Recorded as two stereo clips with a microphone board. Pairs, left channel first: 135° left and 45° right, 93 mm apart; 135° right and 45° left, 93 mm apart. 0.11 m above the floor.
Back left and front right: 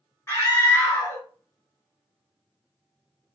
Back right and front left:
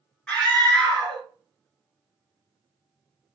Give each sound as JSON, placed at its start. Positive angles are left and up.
{"t": 0.3, "sound": "a scream", "azimuth_deg": 155, "distance_m": 1.5}